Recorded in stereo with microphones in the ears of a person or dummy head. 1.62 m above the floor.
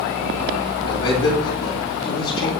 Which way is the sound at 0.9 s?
65° left (ahead or behind).